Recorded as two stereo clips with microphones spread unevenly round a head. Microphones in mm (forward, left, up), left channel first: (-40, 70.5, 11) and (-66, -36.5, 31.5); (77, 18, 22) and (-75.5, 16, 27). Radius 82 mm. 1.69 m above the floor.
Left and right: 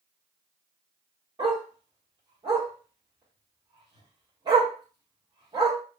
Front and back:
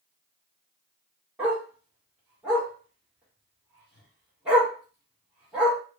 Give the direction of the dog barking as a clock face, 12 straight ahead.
3 o'clock.